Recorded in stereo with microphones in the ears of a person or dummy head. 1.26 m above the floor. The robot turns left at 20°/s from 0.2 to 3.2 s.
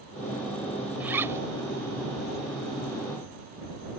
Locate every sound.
1.0 s a zipper: 10° right (ahead or behind); by 1.4 s 20° right (ahead or behind)